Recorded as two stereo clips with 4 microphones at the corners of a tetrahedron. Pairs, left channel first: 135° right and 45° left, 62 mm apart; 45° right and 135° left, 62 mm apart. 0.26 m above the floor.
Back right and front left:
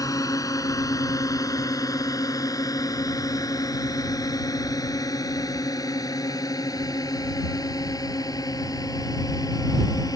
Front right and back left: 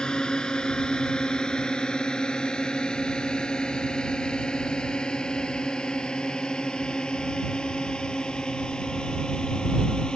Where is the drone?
120° right.